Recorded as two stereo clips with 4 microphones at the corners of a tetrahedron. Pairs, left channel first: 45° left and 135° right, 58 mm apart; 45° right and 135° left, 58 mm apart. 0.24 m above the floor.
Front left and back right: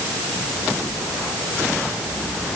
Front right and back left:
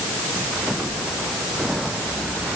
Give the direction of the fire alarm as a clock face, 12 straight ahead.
I don't hear a fire alarm.